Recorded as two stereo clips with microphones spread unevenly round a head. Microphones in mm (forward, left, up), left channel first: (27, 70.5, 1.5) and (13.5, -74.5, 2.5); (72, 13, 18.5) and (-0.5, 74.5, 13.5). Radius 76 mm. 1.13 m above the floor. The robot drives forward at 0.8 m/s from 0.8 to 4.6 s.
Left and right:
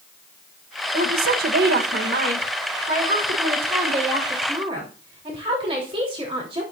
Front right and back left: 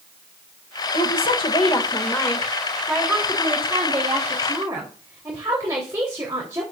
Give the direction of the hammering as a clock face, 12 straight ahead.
I don't hear hammering.